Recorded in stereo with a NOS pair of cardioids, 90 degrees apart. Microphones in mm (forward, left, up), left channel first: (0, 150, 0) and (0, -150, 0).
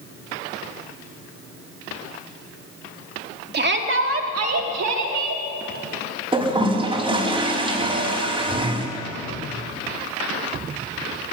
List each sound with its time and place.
3.5 s a shout: 35° right, 3 m; by 5.4 s 70° right, 4 m
6.3 s a toilet flushing: 15° right, 5.5 m